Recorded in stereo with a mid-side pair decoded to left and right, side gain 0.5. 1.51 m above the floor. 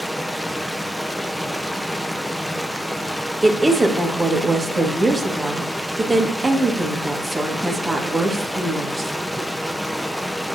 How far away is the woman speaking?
About 2 m.